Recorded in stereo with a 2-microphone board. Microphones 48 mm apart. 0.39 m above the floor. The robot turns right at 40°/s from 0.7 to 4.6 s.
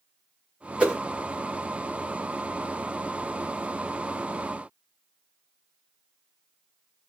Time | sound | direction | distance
0.8 | a whoosh | 25° right (ahead or behind) | 1.1 m